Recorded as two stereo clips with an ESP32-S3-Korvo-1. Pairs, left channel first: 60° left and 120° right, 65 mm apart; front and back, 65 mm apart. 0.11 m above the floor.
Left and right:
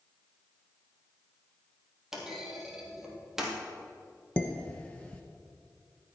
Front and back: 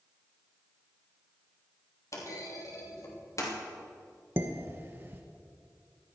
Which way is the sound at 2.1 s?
35° right.